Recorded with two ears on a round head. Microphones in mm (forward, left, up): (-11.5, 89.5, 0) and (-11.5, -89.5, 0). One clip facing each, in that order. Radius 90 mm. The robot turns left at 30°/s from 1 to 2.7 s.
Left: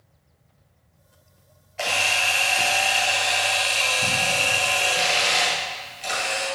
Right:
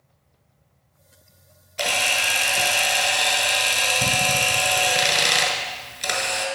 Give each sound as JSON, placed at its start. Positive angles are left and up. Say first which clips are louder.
{"t": 1.8, "sound": "a camera shutter", "louder": "right 1 dB", "side_deg": -45, "distance_m": 1.3}